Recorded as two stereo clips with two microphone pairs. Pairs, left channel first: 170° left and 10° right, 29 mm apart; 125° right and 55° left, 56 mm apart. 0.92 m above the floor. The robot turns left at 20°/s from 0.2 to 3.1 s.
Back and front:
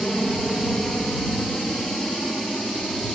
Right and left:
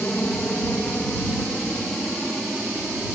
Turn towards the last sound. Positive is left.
turn(degrees=135)